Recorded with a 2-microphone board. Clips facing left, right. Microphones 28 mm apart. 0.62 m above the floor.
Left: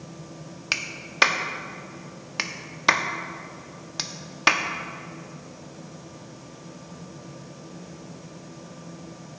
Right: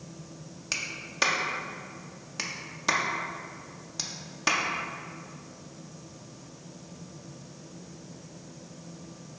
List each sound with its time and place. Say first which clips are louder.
0.7 s a clap: left 5 dB; 40° left (ahead or behind), 0.5 m